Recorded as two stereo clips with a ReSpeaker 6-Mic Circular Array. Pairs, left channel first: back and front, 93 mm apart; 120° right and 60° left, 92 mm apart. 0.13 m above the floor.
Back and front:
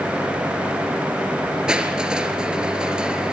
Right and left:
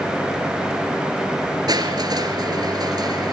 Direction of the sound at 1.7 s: 75° left.